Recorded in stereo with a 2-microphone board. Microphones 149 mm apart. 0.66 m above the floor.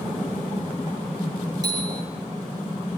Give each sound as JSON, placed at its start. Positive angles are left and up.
{"t": 1.6, "sound": "a bicycle bell", "side_deg": -25, "distance_m": 8.0}